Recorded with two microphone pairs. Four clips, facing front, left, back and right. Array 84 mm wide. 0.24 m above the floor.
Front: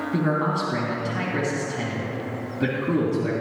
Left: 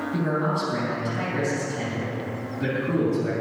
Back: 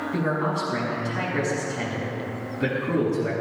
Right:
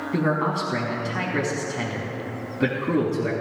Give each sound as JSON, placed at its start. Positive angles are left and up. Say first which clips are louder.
{"t": 0.1, "sound": "a man speaking", "louder": "right 3 dB, front 2 dB", "azimuth_deg": -85, "distance_m": 2.0}